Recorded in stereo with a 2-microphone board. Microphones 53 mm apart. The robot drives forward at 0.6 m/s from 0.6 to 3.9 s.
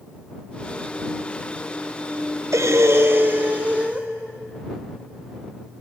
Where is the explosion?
I don't hear an explosion.